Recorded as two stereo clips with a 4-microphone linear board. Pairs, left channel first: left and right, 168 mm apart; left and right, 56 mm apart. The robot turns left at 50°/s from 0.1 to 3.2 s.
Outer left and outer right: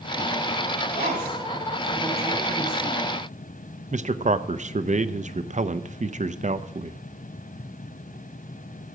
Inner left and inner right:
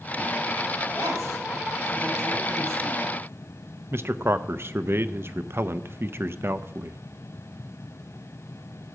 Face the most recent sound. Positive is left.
turn(degrees=-50)  # may be behind; listen again after turning